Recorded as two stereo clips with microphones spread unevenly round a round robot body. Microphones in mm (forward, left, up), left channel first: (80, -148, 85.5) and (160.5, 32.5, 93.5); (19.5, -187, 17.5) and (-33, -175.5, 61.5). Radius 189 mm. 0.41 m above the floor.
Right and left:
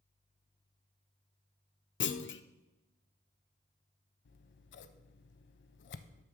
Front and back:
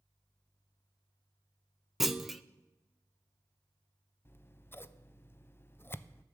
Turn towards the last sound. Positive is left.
turn(degrees=-90)